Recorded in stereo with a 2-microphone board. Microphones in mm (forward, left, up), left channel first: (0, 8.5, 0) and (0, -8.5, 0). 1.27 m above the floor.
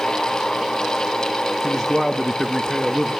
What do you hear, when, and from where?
1.6 s a man speaking: 15° left (ahead or behind), 1.4 m